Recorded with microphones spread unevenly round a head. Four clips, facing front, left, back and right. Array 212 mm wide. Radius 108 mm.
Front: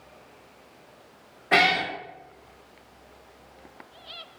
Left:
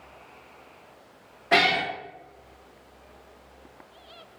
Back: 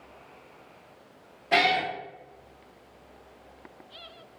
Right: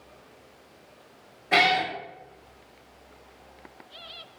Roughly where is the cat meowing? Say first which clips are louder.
Even, front 1 dB; ahead left.